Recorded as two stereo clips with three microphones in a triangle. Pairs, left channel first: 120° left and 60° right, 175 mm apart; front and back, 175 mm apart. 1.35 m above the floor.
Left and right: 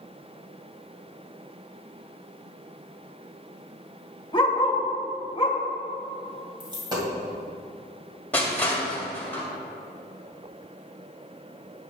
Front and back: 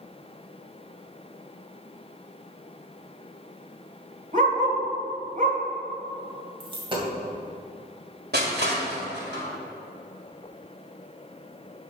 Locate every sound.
4.3 s a dog barking: 165° left, 1.4 m
6.6 s a dropped coin: 120° right, 2 m
8.3 s crushing: 160° right, 2.0 m